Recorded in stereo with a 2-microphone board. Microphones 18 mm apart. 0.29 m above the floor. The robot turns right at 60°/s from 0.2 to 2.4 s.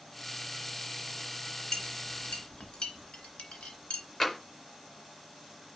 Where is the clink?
30° left (ahead or behind), 2.5 m; by 4.0 s 65° left (ahead or behind), 2.5 m.